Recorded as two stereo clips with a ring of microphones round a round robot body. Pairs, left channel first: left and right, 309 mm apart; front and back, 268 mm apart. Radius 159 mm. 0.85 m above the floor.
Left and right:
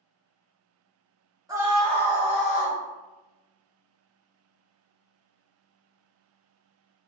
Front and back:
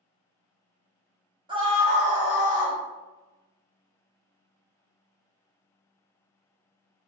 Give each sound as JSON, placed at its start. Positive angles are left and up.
{"t": 1.5, "sound": "a scream", "azimuth_deg": -145, "distance_m": 0.9}